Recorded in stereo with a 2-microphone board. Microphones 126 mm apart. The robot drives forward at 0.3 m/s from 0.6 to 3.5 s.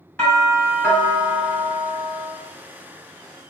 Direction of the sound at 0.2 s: 15° left (ahead or behind).